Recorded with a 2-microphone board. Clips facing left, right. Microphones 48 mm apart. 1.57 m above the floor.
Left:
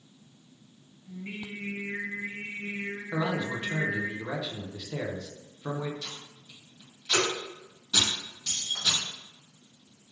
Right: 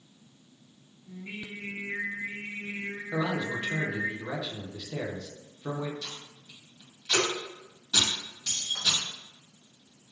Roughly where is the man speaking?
Centre.